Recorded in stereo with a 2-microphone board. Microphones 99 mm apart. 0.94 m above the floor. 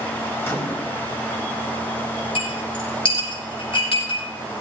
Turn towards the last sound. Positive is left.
turn(degrees=75)  # may be behind; listen again after turning